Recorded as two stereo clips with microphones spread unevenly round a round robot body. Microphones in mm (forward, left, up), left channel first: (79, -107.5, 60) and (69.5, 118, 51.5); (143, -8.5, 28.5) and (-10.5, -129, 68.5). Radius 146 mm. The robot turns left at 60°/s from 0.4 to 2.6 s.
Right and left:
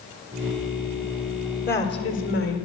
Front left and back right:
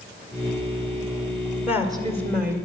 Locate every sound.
1.7 s a woman speaking: 50° right, 1.9 m; by 2.6 s 100° right, 1.9 m